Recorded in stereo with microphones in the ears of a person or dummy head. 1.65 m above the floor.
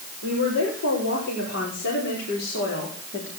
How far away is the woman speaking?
About 6.5 m.